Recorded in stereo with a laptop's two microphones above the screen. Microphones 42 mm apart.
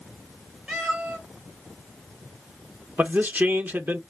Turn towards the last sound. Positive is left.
turn(degrees=-50)  # may be behind; listen again after turning